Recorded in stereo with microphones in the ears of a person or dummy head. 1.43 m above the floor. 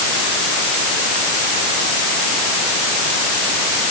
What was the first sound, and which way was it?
Only background noise.